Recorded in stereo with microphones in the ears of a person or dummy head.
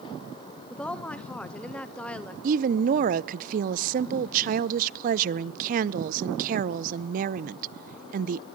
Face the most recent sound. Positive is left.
turn(degrees=-50)  # may be behind; listen again after turning